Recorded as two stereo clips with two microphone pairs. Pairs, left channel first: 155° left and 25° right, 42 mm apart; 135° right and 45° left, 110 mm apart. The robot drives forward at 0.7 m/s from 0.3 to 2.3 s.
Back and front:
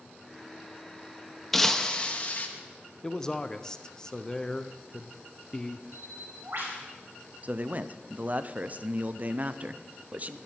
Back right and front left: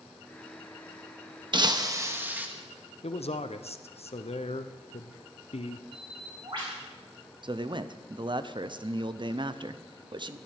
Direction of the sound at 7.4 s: 15° left.